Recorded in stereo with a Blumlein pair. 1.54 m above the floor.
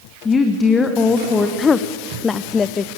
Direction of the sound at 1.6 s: 20° left.